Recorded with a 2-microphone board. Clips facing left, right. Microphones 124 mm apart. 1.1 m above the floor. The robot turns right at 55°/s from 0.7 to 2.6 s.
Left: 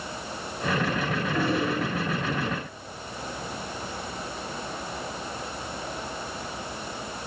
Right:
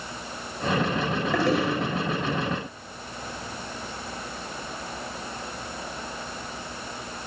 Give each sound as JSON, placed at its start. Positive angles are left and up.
{"t": 1.3, "sound": "a toilet flushing", "side_deg": -85, "distance_m": 6.0}